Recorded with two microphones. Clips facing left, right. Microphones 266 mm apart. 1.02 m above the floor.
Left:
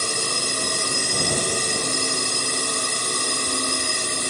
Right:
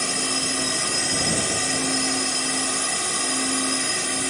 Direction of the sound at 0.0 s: 45° left (ahead or behind).